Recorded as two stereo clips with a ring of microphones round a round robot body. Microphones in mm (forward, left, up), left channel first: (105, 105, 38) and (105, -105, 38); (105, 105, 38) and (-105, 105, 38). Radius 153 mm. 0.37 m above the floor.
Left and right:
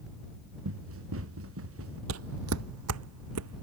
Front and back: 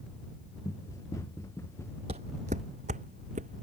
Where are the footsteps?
115° right; by 3.6 s 110° right.